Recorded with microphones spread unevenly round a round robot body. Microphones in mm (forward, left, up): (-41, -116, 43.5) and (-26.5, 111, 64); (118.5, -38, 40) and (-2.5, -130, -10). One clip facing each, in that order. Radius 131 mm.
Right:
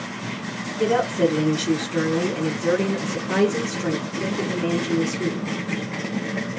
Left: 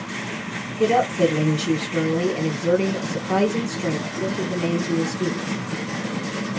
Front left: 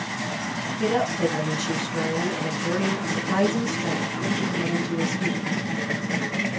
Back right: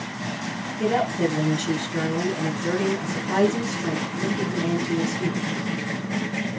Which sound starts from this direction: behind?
A woman speaking, at 0.8 s.